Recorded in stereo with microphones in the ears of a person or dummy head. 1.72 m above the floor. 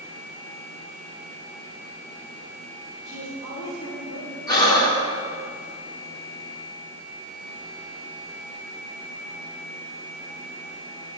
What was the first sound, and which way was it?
A woman speaking, 70° left (ahead or behind).